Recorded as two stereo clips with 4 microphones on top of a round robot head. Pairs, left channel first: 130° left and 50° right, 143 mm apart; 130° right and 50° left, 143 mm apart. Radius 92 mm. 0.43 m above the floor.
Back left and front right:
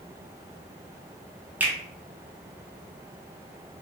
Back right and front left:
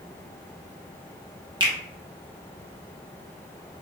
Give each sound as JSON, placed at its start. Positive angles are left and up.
{"t": 1.6, "sound": "a finger snap", "azimuth_deg": 20, "distance_m": 0.9}